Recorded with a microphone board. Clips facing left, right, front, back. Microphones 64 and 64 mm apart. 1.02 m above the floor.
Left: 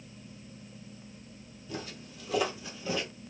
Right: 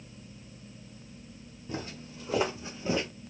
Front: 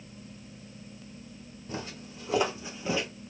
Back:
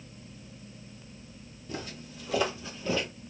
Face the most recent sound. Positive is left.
turn(degrees=-70)